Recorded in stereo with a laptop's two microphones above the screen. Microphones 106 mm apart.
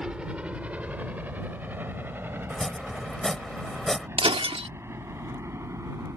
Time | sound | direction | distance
0.0 | a helicopter | 10° right (ahead or behind) | ?
2.5 | chopping | 5° left (ahead or behind) | ?
4.2 | breaking glass | 60° right (ahead or behind) | ?